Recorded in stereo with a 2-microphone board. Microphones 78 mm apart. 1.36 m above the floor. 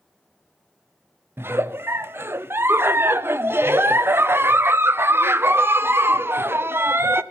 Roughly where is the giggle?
Right.